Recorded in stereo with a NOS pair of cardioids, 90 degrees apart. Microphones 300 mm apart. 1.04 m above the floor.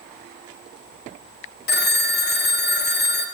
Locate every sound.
1.7 s a phone ringing: 35° left, 1.0 m